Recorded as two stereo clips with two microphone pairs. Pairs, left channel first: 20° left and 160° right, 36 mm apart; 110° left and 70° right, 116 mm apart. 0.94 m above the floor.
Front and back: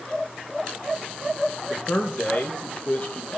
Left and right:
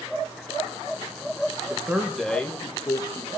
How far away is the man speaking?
About 1.0 m.